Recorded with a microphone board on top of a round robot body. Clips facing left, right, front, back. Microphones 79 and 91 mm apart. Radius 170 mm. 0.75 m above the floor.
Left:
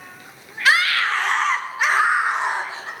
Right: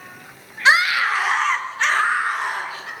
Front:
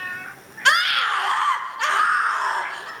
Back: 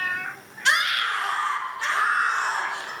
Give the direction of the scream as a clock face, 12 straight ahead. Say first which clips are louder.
Right 2 dB, front 4 dB; 1 o'clock.